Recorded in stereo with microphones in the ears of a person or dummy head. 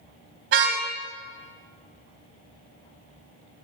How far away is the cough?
I don't hear a cough.